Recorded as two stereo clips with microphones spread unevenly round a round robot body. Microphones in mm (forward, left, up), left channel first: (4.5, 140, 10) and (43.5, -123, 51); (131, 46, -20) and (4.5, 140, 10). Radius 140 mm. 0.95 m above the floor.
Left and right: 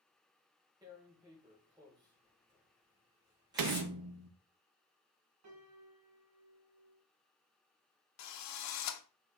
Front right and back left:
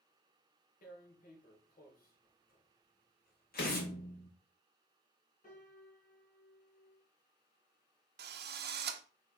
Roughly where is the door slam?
Right.